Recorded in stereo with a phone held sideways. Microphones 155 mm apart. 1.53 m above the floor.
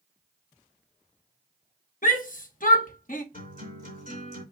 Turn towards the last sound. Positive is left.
turn(degrees=60)  # may be behind; listen again after turning